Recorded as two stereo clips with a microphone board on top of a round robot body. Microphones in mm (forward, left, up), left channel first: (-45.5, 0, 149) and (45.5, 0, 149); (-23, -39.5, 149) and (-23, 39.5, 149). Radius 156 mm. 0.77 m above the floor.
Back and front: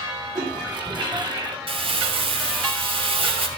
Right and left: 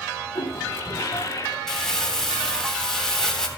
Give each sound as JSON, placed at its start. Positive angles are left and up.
{"t": 0.3, "sound": "a toilet flushing", "azimuth_deg": -35, "distance_m": 3.5}
{"t": 1.7, "sound": "crumpling", "azimuth_deg": -5, "distance_m": 3.5}